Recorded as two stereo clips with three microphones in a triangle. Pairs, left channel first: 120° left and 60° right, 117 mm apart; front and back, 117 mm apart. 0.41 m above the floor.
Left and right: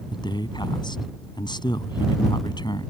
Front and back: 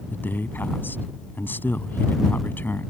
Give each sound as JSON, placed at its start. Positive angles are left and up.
{"t": 0.1, "sound": "a man speaking", "azimuth_deg": 70}